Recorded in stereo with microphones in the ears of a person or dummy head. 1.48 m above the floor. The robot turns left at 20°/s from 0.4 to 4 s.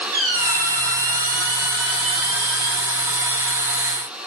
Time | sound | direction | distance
0.1 | a squeak | 25° right | 3.5 m